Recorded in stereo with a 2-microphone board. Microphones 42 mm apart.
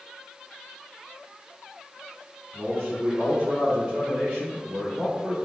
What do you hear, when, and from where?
2.5 s a man speaking: 40° right (ahead or behind), 2.0 m; by 5.4 s 45° right (ahead or behind), 3.5 m